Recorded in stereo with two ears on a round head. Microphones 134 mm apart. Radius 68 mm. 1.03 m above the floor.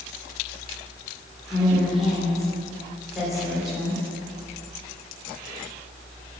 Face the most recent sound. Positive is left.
turn(degrees=0)  # may be behind; listen again after turning